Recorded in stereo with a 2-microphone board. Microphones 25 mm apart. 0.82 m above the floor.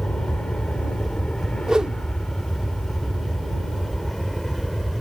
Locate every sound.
0.0 s an aircraft: 50° left (ahead or behind); by 5.0 s 10° left (ahead or behind)
1.7 s a whoosh: 30° right (ahead or behind)